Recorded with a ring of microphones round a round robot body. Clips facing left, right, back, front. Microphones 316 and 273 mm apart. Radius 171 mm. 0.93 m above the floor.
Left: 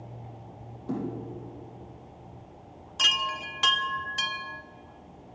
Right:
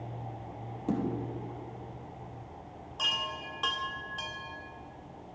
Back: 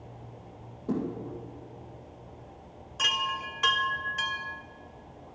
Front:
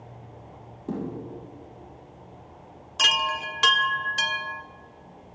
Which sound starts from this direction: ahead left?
A chime, at 3.0 s.